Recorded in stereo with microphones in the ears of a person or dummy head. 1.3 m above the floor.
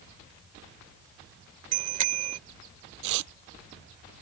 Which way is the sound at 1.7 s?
45° right (ahead or behind).